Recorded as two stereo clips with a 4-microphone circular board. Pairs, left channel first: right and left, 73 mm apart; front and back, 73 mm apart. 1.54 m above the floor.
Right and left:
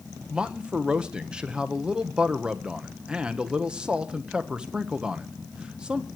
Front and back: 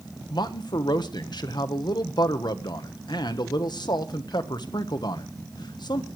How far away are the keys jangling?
I don't hear keys jangling.